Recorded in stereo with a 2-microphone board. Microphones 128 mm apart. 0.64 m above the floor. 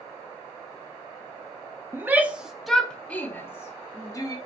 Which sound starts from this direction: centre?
A shout, at 1.9 s.